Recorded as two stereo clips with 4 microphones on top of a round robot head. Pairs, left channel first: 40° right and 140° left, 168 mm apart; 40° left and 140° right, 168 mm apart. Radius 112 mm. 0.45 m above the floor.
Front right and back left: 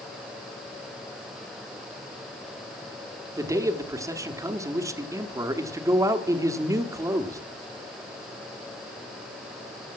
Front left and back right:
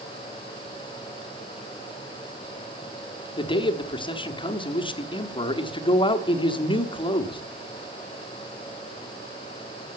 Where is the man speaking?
80° left, 1.2 m.